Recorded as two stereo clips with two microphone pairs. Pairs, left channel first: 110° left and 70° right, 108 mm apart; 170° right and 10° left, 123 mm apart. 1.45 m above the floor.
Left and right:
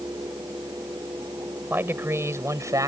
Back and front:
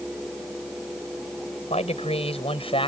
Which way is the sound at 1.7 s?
140° right.